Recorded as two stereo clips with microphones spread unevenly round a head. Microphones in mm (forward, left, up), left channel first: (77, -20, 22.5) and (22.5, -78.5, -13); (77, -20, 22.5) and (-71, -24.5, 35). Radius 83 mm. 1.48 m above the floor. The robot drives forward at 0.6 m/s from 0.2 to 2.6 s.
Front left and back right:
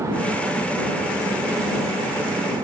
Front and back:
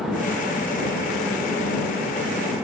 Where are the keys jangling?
I don't hear keys jangling.